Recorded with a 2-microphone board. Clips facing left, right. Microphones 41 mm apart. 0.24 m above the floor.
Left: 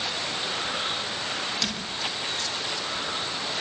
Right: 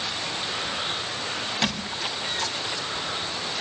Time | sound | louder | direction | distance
1.6 | a squeak | right 3 dB | 25° right (ahead or behind) | 5.5 m